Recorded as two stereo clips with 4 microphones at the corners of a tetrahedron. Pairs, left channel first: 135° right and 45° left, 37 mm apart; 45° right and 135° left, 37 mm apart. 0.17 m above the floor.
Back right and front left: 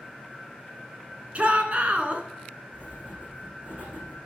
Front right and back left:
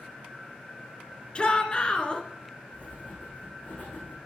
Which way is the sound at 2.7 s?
5° left.